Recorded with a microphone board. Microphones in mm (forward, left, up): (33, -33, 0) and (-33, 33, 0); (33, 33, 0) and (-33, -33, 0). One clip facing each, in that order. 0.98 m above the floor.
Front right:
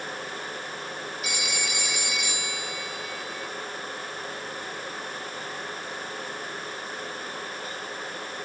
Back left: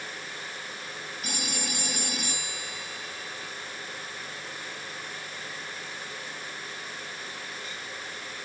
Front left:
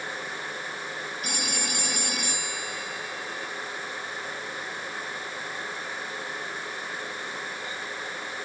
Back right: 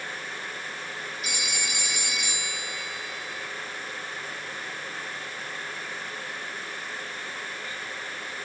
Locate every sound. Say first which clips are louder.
1.2 s a phone ringing: even, front left 2 dB; 90° left